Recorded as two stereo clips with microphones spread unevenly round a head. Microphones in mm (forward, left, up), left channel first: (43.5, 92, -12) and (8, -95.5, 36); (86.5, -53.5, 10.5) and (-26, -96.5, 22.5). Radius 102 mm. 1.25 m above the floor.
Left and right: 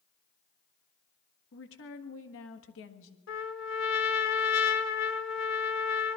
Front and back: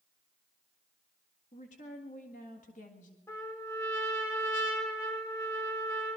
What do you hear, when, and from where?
1.5 s a woman speaking: 65° left, 1.6 m
3.3 s a trumpet: 95° left, 1.3 m